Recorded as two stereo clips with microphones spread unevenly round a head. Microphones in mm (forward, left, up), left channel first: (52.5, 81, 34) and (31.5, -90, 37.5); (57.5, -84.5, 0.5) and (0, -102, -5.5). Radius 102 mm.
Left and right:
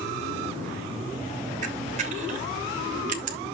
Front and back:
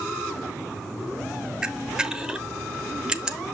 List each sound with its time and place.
1.6 s a camera shutter: 85° right, 1.0 m